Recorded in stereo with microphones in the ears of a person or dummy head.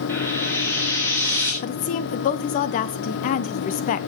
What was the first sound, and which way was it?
Frying, 10° left (ahead or behind).